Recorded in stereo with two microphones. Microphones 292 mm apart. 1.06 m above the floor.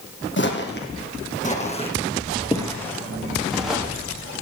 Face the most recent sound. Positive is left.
turn(degrees=-5)  # may be behind; listen again after turning